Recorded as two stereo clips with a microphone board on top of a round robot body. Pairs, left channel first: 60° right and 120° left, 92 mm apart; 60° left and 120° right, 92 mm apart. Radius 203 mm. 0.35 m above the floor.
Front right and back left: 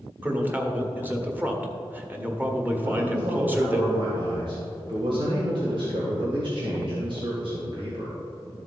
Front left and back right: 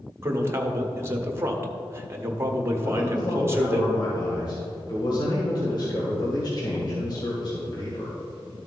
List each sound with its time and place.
0.2 s a man speaking: 175° right, 1.6 m
2.8 s a man speaking: 100° left, 2.5 m